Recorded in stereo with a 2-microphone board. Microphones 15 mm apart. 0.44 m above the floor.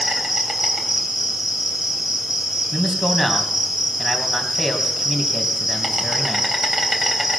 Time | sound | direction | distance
0.0 | an insect | 35° right (ahead or behind) | 3.5 m
2.7 | a man speaking | 5° right (ahead or behind) | 2.5 m